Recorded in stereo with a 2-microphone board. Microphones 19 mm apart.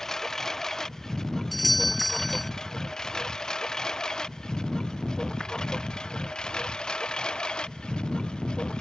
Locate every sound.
0.0 s a lawn mower: 20° left (ahead or behind); by 8.8 s 55° left (ahead or behind)
1.5 s a doorbell: 5° left (ahead or behind)